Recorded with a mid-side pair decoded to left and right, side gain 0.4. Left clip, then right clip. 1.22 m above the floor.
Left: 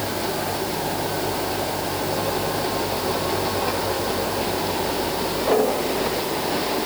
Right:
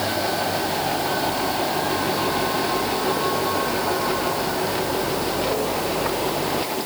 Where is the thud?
I don't hear a thud.